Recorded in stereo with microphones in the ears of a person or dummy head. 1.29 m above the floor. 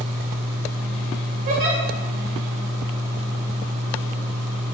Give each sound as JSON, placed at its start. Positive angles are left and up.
{"t": 1.5, "sound": "a giggle", "side_deg": -40, "distance_m": 1.6}